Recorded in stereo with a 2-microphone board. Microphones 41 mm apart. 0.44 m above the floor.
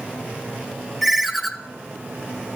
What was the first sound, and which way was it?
A ringtone, centre (ahead or behind).